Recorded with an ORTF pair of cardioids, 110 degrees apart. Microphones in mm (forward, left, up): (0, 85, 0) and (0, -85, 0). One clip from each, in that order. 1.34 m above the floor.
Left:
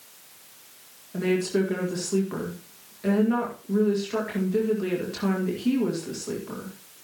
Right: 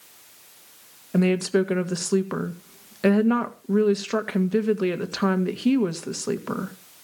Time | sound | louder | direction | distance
1.1 | a woman speaking | right 3 dB | 70° right | 1.9 m